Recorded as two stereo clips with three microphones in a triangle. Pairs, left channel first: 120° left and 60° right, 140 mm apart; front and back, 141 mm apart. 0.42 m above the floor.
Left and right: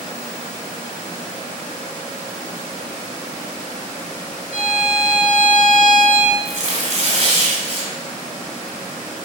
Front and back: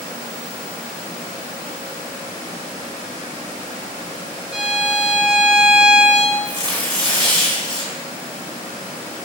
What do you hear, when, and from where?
4.5 s a violin: 95° right, 0.7 m
6.5 s tearing paper: 40° right, 1.2 m